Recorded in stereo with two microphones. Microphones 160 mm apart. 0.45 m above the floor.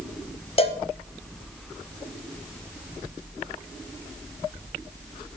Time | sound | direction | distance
0.6 | a cowbell | 40° left (ahead or behind) | 0.6 m